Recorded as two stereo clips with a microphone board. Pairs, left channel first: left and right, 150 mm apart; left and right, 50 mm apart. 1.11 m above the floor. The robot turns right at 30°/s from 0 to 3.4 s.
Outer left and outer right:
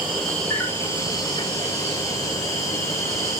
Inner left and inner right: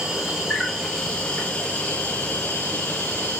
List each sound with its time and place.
0.0 s an insect: 10° right, 3.5 m; by 3.4 s 90° left, 3.5 m